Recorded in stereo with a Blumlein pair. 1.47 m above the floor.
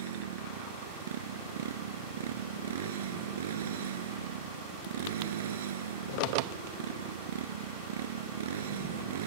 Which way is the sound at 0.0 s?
60° right.